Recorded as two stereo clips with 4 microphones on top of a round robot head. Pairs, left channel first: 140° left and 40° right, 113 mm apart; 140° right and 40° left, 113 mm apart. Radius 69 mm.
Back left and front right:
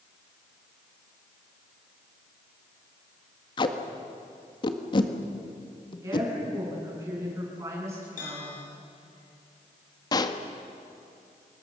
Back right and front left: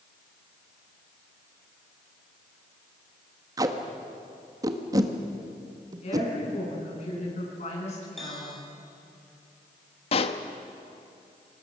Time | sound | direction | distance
3.6 | tape being pulled | 100° left | 1.7 m
6.0 | a woman speaking | 110° right | 9.5 m
8.2 | a bell | 135° left | 7 m
10.1 | a pop | 170° right | 1.3 m